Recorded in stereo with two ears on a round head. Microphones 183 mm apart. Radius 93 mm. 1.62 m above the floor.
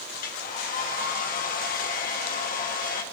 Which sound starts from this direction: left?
A hair dryer, at 0.1 s.